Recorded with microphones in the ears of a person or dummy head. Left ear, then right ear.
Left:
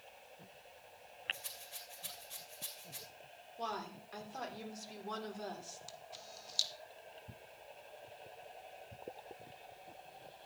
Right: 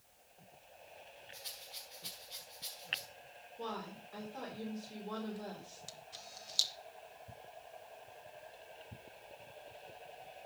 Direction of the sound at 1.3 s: 40° left (ahead or behind).